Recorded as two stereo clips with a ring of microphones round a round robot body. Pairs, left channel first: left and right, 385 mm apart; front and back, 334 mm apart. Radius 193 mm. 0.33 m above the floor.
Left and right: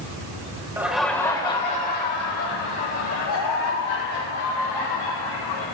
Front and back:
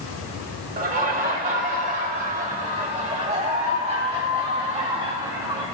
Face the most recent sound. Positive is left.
turn(degrees=105)